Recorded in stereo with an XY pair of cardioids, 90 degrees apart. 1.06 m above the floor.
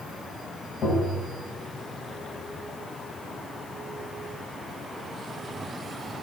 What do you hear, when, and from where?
0.8 s tapping: 65° left, 6 m